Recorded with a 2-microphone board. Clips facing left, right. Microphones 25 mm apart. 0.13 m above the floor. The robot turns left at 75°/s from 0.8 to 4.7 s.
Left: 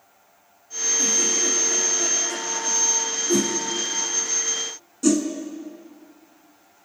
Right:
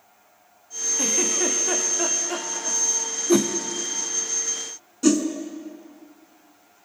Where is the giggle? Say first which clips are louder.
Even; 50° right, 2.5 m; by 2.8 s 175° left, 2.5 m.